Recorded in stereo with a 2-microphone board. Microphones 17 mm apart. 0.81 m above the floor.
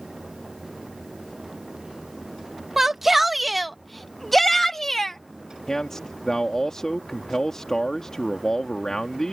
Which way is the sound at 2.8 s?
20° right (ahead or behind).